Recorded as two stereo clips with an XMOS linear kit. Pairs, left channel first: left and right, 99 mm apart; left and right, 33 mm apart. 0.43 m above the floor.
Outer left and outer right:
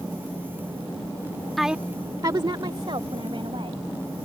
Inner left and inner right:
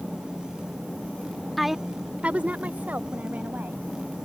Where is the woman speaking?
Centre (ahead or behind); by 3.8 s 70° right (ahead or behind).